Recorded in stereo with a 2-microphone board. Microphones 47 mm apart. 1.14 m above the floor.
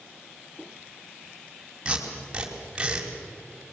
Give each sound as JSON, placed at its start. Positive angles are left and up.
{"t": 1.9, "sound": "tape being pulled", "side_deg": -20, "distance_m": 3.5}